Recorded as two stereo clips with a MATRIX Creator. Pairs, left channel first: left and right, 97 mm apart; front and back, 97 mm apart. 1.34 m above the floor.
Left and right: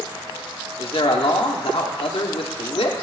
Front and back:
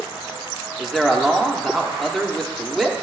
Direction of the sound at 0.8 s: 90° left.